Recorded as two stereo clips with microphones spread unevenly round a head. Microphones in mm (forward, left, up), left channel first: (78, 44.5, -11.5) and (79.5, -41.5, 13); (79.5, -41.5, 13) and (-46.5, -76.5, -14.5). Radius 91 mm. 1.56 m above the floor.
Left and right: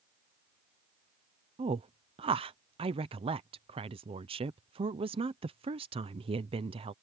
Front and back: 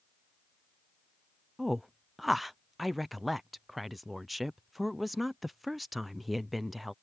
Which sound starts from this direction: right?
A woman speaking, at 1.6 s.